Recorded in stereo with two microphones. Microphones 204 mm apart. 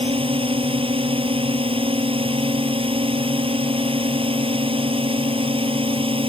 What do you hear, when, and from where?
0.0 s a drone: 25° right (ahead or behind)